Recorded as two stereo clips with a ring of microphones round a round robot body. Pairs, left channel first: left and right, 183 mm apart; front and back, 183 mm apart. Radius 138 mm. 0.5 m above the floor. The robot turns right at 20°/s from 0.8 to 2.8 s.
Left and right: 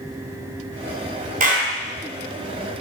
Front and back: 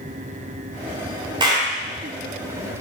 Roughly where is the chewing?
I don't hear chewing.